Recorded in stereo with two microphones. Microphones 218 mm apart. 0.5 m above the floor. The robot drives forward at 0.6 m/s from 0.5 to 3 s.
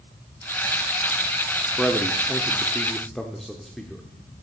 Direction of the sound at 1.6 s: 5° left (ahead or behind).